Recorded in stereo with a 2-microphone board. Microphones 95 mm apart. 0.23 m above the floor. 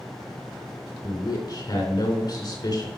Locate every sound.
1.0 s a man speaking: 50° left (ahead or behind), 3 m